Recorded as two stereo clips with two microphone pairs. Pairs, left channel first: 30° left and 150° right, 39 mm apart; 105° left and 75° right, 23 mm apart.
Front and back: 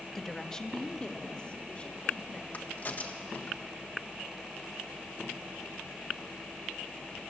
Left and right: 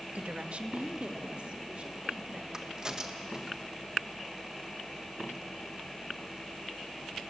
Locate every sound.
0.1 s a woman speaking: 50° right, 1.2 m; by 2.4 s 25° right, 4 m
2.5 s a crack: 10° right, 1.7 m